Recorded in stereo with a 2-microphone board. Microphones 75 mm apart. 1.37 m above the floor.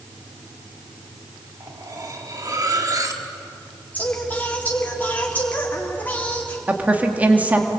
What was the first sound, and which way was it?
Cutlery clinking, 50° right (ahead or behind).